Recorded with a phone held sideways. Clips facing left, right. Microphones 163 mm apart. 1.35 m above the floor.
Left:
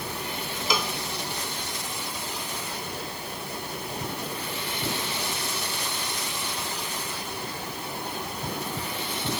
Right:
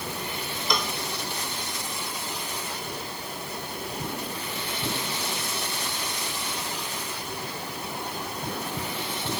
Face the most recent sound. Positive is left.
turn(degrees=5)  # may be behind; listen again after turning